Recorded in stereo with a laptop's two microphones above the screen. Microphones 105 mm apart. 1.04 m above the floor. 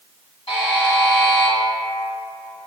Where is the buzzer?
70° left (ahead or behind), 1.9 m.